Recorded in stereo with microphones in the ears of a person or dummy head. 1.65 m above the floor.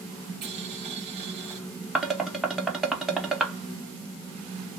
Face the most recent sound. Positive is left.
turn(degrees=-5)  # may be behind; listen again after turning